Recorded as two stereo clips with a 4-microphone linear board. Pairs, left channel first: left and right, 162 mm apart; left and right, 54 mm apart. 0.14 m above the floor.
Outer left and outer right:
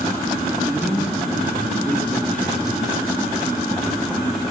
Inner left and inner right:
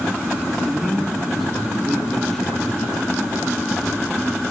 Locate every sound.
0.5 s a man speaking: centre (ahead or behind), 3.5 m; by 2.9 s 10° left (ahead or behind), 2.5 m